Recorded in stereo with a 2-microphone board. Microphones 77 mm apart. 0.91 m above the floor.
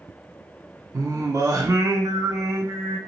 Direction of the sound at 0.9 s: 45° right (ahead or behind).